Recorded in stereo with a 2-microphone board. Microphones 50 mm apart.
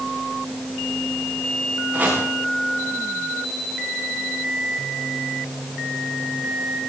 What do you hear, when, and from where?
1.9 s chopping: 30° right (ahead or behind), 9.5 m